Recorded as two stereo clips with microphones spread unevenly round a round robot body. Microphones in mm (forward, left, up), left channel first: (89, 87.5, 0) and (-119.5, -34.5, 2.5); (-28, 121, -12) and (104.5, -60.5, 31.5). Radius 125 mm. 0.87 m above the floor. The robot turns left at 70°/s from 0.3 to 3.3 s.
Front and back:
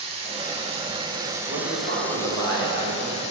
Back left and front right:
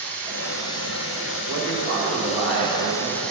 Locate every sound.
0.0 s running water: 130° right, 0.8 m; by 3.3 s 20° left, 0.8 m
1.5 s a man speaking: 80° right, 1.4 m; by 3.2 s 155° left, 1.4 m